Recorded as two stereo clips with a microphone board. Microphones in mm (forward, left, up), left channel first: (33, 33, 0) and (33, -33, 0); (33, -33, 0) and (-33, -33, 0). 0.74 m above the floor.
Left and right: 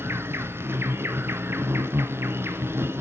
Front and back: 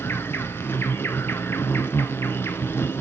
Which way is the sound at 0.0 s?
45° right.